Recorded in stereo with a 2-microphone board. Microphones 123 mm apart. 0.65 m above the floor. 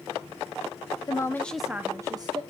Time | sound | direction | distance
1.1 | a woman speaking | 30° left (ahead or behind) | 0.7 m